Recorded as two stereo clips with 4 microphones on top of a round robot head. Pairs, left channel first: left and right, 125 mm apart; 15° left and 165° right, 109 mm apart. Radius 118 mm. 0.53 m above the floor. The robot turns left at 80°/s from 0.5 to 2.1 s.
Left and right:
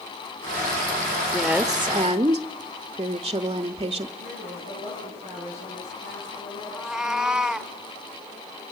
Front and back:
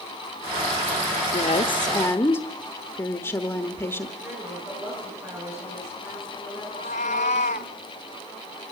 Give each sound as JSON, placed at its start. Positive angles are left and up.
{"t": 1.3, "sound": "a woman speaking", "azimuth_deg": 15, "distance_m": 1.0}
{"t": 4.2, "sound": "a woman speaking", "azimuth_deg": 125, "distance_m": 9.5}
{"t": 6.7, "sound": "a cat meowing", "azimuth_deg": -5, "distance_m": 0.5}